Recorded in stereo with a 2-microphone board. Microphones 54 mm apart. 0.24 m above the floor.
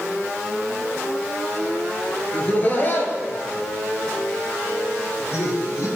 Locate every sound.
2.3 s laughter: 30° left (ahead or behind), 3.5 m; by 5.9 s 70° left (ahead or behind), 6 m